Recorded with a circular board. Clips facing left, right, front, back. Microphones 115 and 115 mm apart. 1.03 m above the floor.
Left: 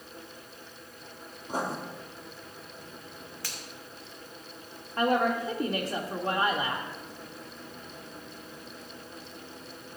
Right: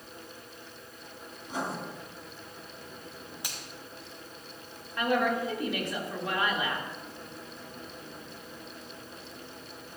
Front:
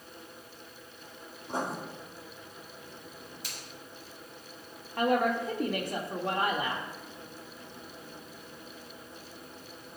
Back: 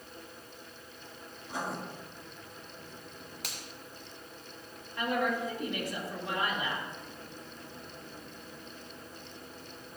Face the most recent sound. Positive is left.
turn(degrees=35)